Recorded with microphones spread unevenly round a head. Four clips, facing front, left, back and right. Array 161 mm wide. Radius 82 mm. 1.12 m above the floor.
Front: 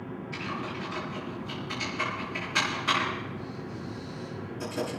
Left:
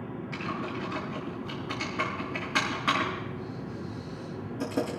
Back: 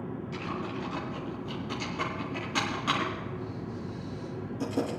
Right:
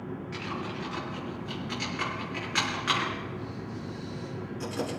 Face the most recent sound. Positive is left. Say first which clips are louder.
# left 3 dB, front 1 dB
turn(degrees=125)